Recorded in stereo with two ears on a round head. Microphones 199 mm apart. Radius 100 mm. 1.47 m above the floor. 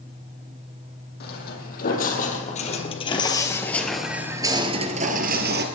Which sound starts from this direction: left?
Footsteps, at 1.2 s.